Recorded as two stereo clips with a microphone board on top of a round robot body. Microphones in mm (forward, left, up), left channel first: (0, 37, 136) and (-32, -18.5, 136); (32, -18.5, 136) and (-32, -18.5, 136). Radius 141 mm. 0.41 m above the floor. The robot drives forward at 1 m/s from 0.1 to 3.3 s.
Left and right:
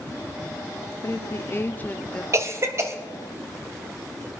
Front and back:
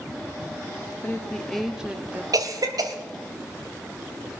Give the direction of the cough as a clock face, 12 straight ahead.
5 o'clock.